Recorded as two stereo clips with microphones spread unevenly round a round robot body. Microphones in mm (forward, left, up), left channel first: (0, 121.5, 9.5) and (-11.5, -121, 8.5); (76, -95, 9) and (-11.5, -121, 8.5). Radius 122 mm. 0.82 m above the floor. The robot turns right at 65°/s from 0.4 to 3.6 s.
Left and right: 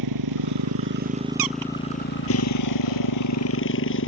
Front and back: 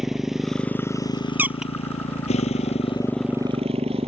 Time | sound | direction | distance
0.0 | a motorcycle | 75° right | ?
1.4 | a squeak | 95° right | ?